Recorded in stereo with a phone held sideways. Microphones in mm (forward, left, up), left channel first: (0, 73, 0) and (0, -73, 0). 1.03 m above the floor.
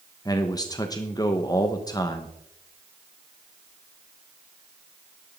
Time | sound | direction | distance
0.2 | a man speaking | 25° left (ahead or behind) | 1.1 m